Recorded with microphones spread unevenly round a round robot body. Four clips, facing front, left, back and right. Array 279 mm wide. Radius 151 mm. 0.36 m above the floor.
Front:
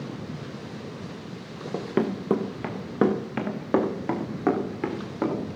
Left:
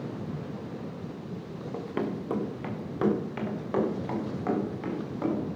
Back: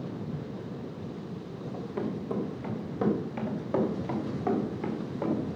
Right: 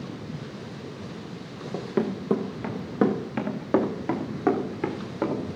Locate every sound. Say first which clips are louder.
1.7 s running footsteps: right 5 dB, front 8 dB; 15° right, 2 m; by 5.4 s 35° right, 3.5 m